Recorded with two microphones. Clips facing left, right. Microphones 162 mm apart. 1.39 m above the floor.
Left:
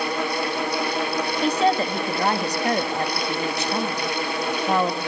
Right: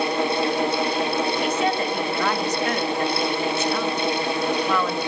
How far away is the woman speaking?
About 2 m.